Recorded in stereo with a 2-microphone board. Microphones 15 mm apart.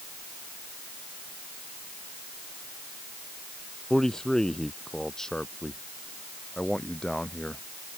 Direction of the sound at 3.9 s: 35° left (ahead or behind).